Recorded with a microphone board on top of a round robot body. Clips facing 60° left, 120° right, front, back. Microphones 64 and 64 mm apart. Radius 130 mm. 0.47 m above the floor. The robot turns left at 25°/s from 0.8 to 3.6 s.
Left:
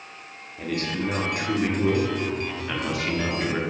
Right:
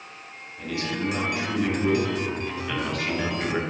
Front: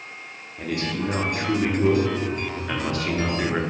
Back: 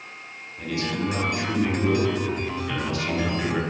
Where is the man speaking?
30° left, 1.4 m; by 3.6 s 40° right, 1.4 m.